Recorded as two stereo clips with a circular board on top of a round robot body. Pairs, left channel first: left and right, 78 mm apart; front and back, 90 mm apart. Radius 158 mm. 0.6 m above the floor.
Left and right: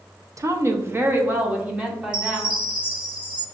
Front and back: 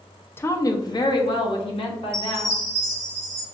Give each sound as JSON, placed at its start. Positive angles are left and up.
{"t": 0.4, "sound": "a woman speaking", "azimuth_deg": -55, "distance_m": 0.7}
{"t": 2.1, "sound": "a chime", "azimuth_deg": -120, "distance_m": 1.0}